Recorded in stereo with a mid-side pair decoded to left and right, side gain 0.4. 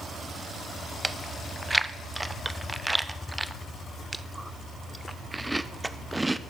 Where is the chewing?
15° right, 0.7 m.